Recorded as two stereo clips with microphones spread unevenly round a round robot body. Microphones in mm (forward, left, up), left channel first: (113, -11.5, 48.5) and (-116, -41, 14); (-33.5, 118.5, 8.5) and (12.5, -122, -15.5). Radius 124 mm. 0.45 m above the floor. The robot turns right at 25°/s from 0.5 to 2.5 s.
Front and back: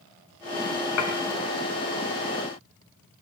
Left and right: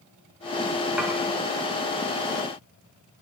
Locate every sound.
1.0 s dishes clattering: 5° left, 1.9 m; by 1.1 s 10° left, 1.9 m